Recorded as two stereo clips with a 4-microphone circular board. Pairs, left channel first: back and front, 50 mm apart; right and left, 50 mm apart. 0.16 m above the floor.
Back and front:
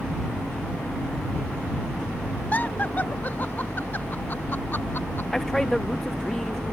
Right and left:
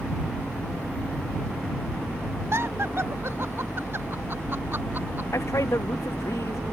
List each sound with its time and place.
2.5 s laughter: 125° left; by 5.3 s 140° left
5.3 s a man speaking: 100° right